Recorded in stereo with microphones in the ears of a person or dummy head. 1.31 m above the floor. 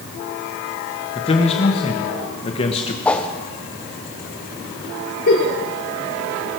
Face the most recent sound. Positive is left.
turn(degrees=55)  # may be behind; listen again after turning